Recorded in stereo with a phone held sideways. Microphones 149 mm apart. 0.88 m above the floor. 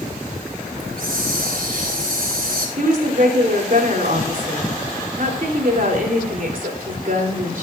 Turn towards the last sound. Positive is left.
turn(degrees=-65)  # may be behind; listen again after turning